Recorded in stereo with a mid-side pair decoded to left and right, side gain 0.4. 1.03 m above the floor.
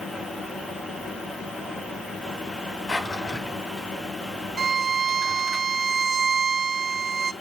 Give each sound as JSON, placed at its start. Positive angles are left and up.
{"t": 0.0, "sound": "a fan", "azimuth_deg": 30, "distance_m": 2.5}
{"t": 2.9, "sound": "a drawer", "azimuth_deg": 30, "distance_m": 3.0}
{"t": 4.6, "sound": "a violin", "azimuth_deg": -40, "distance_m": 0.8}